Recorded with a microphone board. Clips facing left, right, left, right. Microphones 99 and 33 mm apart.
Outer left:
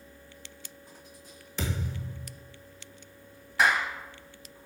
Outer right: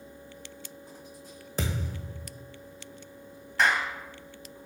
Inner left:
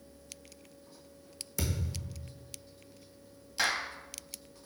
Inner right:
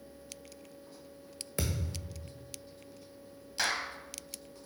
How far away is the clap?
About 0.8 m.